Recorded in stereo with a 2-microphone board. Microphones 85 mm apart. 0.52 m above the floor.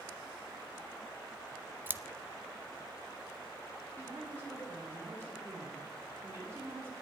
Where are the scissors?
25° right (ahead or behind), 0.5 m.